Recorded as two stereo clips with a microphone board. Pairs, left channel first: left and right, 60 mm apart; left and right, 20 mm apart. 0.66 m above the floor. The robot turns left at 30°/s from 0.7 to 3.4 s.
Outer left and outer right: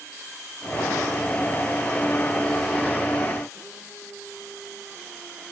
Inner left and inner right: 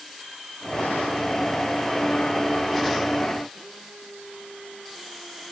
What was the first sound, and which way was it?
Only background noise.